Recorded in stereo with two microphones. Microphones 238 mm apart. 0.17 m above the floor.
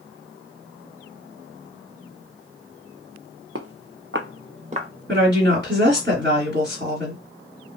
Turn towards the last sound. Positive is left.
turn(degrees=-45)  # may be behind; listen again after turning